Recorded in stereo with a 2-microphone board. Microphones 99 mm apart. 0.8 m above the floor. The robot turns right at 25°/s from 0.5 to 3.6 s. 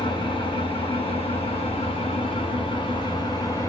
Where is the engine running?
60° left, 2.5 m; by 3.7 s 140° left, 2.5 m.